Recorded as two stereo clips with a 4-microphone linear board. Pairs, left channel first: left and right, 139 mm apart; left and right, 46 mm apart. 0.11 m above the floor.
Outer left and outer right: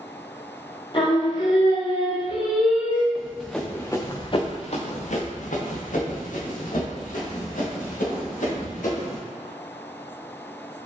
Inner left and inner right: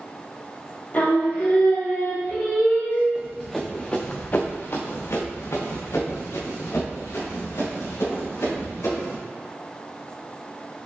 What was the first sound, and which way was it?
Singing, 40° left (ahead or behind).